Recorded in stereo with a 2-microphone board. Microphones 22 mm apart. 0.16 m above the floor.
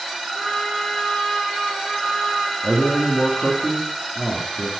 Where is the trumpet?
65° left (ahead or behind), 4 m.